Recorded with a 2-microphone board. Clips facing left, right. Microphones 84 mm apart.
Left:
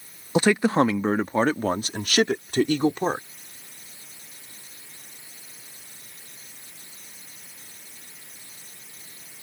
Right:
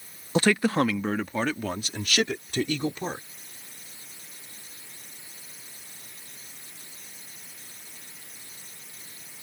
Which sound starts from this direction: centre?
A man speaking, at 0.3 s.